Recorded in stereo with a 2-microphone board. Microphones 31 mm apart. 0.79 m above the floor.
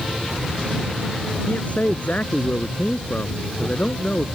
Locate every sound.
1.5 s a man speaking: 50° left (ahead or behind)